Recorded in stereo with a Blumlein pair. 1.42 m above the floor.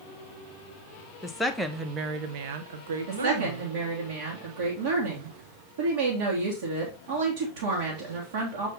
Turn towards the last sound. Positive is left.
turn(degrees=-55)